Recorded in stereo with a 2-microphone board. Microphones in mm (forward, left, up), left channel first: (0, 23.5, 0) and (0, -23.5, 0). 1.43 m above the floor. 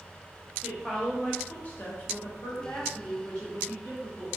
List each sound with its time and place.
0.6 s a woman speaking: 5° left (ahead or behind), 1.0 m; by 4.3 s 65° left (ahead or behind), 1.3 m